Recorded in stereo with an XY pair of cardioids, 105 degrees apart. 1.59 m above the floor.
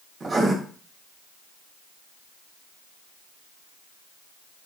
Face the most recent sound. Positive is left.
turn(degrees=-30)